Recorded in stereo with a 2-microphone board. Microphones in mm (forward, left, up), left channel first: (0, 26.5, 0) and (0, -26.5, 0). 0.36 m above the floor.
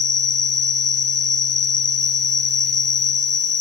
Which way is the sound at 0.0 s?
80° right.